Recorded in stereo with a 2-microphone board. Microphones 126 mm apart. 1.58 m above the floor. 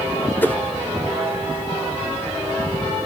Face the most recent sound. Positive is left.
turn(degrees=15)  # may be behind; listen again after turning